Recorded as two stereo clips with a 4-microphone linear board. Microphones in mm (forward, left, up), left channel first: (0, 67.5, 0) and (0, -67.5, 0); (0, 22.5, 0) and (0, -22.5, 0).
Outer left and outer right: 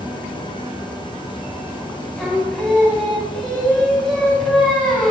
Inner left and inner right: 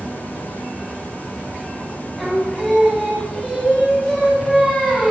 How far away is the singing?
About 2 m.